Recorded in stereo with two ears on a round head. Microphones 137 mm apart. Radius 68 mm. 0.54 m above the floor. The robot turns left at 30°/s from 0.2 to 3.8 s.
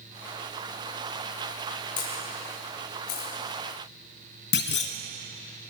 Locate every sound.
2.0 s a camera shutter: 30° left (ahead or behind), 6 m; by 3.3 s 70° left (ahead or behind), 6 m
4.5 s a clunk: 80° left, 1.2 m